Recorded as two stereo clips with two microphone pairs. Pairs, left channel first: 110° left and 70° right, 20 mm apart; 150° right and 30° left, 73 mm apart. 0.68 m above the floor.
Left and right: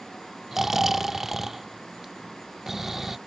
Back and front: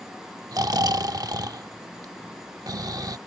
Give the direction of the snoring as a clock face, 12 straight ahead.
12 o'clock.